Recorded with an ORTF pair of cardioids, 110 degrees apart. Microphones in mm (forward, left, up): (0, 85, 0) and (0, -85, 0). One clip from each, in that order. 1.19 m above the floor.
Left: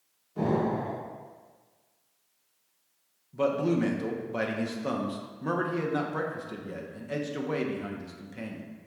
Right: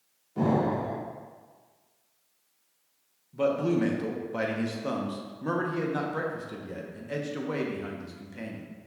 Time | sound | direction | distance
0.4 | an explosion | 10° right | 1.5 m
3.3 | a man speaking | 10° left | 0.7 m